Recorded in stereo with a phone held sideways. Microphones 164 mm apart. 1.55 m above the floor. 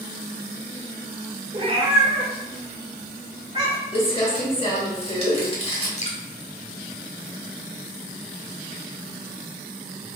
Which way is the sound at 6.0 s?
45° left (ahead or behind).